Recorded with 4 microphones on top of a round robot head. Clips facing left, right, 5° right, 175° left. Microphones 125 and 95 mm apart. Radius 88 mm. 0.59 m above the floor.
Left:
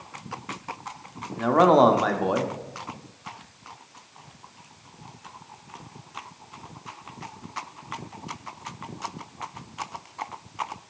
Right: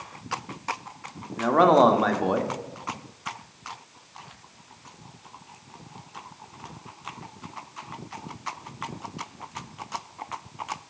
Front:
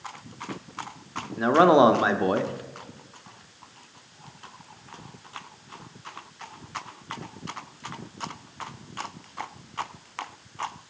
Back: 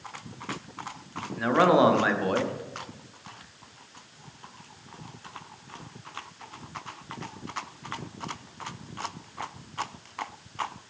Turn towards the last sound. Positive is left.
turn(degrees=5)